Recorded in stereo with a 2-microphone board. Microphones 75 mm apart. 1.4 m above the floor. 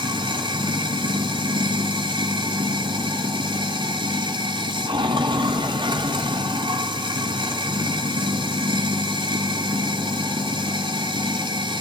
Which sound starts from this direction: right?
Running water, at 0.0 s.